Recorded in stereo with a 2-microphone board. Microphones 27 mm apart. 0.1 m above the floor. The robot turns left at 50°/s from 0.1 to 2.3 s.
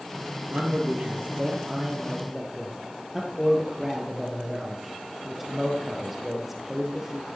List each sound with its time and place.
0.5 s a man speaking: 80° right, 2.5 m; by 7.2 s 170° right, 2.5 m